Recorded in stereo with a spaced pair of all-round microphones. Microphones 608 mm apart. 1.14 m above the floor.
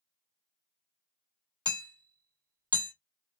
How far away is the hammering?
About 1.9 m.